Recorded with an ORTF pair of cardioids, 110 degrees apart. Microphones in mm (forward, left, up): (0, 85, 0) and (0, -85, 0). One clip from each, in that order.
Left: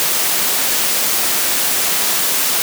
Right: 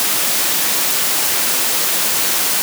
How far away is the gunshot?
No gunshot in this recording.